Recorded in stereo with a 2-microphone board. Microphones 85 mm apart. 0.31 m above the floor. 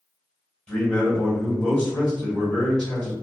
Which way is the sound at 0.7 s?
15° left (ahead or behind).